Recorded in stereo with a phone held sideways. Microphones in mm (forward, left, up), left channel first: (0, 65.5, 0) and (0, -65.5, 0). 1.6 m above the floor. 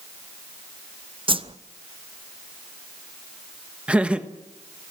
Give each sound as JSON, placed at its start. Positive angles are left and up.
{"t": 1.3, "sound": "a whoosh", "side_deg": -40, "distance_m": 0.8}
{"t": 3.9, "sound": "laughter", "side_deg": -10, "distance_m": 1.3}